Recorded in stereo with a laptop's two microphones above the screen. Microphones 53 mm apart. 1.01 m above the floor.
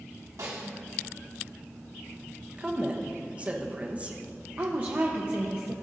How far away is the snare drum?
About 1.4 m.